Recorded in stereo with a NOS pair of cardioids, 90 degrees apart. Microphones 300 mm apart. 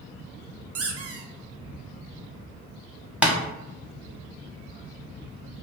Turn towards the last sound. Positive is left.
turn(degrees=-5)